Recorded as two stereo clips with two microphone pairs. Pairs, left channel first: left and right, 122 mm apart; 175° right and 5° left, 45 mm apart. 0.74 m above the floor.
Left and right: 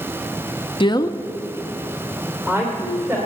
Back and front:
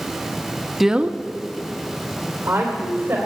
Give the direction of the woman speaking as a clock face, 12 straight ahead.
9 o'clock.